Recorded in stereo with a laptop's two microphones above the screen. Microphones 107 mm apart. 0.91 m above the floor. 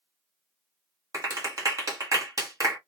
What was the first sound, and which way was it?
A clap, 35° right (ahead or behind).